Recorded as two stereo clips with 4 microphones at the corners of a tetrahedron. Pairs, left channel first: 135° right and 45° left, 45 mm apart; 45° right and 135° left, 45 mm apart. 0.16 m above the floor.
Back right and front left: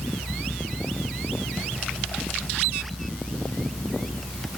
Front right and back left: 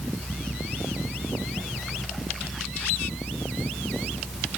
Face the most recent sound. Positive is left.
No sound to turn to.